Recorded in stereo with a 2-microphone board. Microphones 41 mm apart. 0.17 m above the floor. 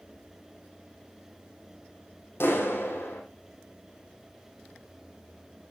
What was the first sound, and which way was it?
A clap, 70° left (ahead or behind).